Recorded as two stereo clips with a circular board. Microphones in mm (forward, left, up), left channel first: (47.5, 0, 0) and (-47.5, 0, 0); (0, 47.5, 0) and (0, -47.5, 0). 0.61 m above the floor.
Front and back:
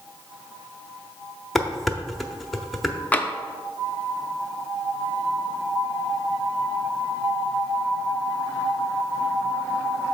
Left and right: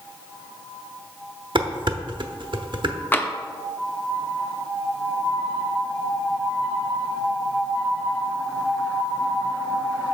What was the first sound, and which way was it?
Dishes clattering, 90° right.